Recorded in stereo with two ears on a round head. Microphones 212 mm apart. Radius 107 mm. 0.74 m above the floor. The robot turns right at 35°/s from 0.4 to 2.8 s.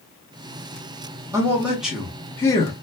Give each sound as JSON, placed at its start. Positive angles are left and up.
{"t": 1.3, "sound": "a man speaking", "azimuth_deg": -20, "distance_m": 0.8}